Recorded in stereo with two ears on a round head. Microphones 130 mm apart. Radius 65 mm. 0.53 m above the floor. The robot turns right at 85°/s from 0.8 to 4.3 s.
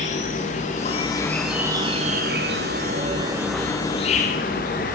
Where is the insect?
125° left, 6 m; by 5.0 s 60° left, 6 m.